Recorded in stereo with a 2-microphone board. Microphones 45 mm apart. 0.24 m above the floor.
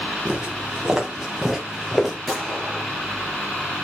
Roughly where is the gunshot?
Centre.